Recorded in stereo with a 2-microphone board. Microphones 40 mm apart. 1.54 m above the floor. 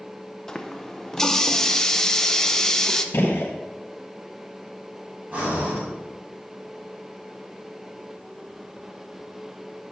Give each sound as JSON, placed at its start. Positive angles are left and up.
{"t": 0.5, "sound": "a running tap", "side_deg": 15, "distance_m": 0.6}
{"t": 3.1, "sound": "a gunshot", "side_deg": 65, "distance_m": 1.0}
{"t": 5.3, "sound": "breathing", "side_deg": -35, "distance_m": 4.0}